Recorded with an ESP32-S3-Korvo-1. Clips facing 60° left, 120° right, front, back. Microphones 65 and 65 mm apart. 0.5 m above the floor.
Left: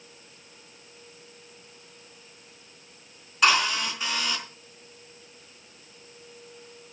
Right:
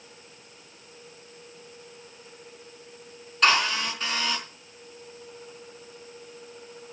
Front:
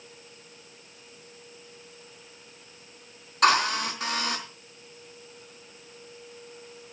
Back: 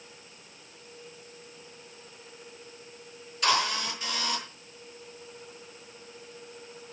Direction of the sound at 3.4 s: 25° right.